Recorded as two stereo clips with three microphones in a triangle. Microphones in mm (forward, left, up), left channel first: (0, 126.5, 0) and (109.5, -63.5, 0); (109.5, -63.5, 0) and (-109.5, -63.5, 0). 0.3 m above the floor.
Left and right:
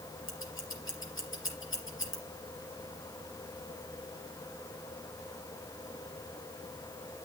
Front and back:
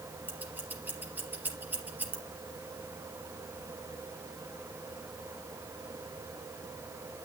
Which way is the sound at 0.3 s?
100° left.